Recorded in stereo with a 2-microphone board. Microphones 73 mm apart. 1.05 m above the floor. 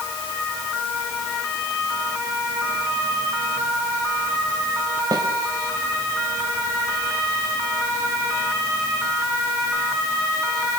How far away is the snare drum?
About 3.5 m.